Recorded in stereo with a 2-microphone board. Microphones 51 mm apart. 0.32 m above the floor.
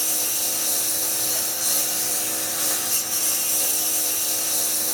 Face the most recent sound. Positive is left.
turn(degrees=0)  # may be behind; listen again after turning